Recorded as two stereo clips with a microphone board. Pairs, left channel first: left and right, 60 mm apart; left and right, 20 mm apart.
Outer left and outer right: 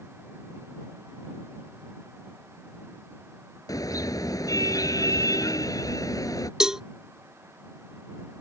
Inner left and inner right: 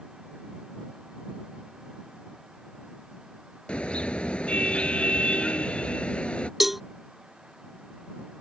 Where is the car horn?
80° left.